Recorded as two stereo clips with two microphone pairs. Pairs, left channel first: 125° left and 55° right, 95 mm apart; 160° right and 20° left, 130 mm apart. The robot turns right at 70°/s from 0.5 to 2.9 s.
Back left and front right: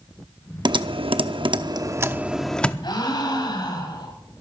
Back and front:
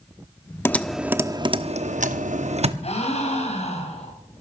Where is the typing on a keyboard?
90° right, 0.6 m; by 2.7 s 55° left, 0.6 m.